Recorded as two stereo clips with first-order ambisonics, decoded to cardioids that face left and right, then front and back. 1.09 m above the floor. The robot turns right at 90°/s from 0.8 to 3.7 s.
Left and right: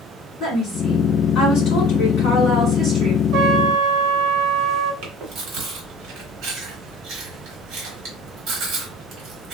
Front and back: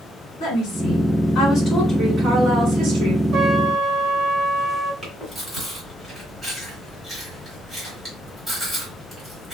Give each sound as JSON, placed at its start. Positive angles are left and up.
{"t": 0.4, "sound": "a woman speaking", "azimuth_deg": -10, "distance_m": 2.0}
{"t": 3.3, "sound": "a trumpet", "azimuth_deg": -130, "distance_m": 1.4}
{"t": 5.0, "sound": "chewing", "azimuth_deg": -100, "distance_m": 1.4}